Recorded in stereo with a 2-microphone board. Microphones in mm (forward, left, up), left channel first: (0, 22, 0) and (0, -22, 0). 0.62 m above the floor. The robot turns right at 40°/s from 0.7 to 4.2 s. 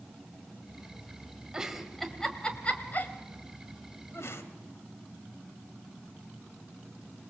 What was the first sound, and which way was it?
A giggle, 15° right (ahead or behind).